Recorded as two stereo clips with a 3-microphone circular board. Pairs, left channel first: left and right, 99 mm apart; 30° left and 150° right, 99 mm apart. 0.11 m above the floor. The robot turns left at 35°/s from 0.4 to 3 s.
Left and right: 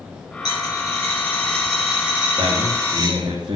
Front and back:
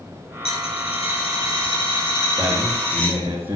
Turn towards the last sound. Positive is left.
turn(degrees=-80)